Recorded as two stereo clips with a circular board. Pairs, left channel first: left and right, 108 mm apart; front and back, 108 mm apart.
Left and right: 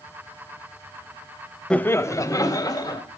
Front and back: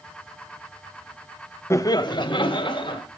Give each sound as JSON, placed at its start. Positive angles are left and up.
{"t": 1.7, "sound": "laughter", "azimuth_deg": 20, "distance_m": 0.7}